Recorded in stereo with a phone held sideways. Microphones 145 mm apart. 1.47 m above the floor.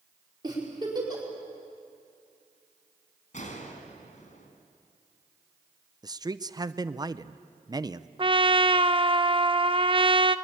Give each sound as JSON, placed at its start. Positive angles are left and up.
{"t": 0.4, "sound": "a giggle", "side_deg": -30, "distance_m": 5.0}
{"t": 3.3, "sound": "a gunshot", "side_deg": 60, "distance_m": 3.0}
{"t": 6.0, "sound": "a man speaking", "side_deg": -30, "distance_m": 0.6}
{"t": 8.2, "sound": "a trumpet", "side_deg": -35, "distance_m": 0.6}